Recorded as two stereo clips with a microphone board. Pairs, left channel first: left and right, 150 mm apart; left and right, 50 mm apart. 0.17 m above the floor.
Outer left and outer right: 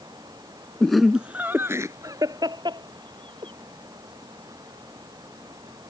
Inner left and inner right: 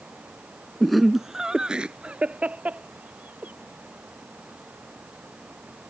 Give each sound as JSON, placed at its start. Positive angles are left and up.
{"t": 0.8, "sound": "laughter", "side_deg": 5}